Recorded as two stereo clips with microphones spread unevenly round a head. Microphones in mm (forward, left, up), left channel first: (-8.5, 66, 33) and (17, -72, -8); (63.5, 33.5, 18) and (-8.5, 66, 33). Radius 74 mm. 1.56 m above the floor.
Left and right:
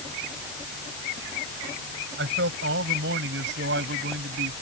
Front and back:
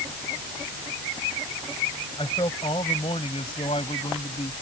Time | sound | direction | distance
2.2 | a man speaking | 85° right | ?